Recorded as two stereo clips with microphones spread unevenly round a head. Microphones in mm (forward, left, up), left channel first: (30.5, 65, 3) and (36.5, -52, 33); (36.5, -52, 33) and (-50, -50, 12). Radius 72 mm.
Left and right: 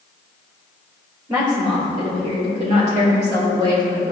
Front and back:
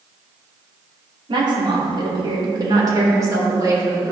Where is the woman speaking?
155° right, 2.5 m; by 4.1 s 125° right, 4 m.